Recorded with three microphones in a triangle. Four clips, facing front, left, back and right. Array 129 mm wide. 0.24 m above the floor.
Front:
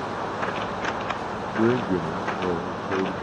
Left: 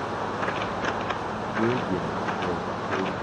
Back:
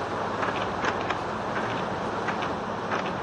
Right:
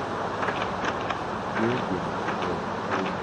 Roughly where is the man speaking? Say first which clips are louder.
Left 1 dB, front 7 dB; ahead.